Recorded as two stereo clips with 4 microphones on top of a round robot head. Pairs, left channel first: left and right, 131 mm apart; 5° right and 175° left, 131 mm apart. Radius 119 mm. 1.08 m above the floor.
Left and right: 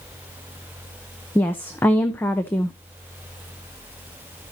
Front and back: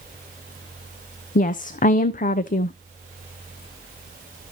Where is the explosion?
No explosion in this recording.